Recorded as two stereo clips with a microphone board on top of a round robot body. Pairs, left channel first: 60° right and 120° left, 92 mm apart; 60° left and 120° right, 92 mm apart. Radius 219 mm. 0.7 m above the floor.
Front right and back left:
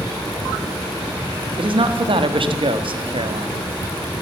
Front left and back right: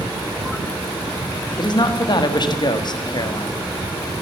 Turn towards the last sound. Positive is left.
turn(degrees=100)